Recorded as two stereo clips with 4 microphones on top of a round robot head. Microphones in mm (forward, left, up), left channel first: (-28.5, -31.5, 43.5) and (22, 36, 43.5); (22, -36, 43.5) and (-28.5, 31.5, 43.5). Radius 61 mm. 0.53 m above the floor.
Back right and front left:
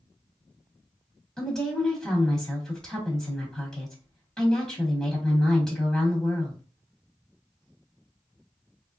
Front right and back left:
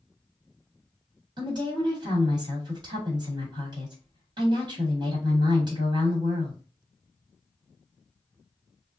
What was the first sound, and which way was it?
A woman speaking, 155° left.